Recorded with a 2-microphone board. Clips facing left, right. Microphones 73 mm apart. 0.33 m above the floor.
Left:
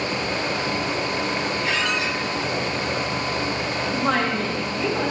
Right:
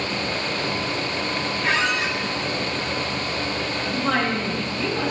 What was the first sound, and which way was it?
A squeak, 55° right (ahead or behind).